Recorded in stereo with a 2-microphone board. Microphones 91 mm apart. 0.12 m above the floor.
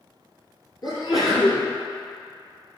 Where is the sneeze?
45° left (ahead or behind), 2 m.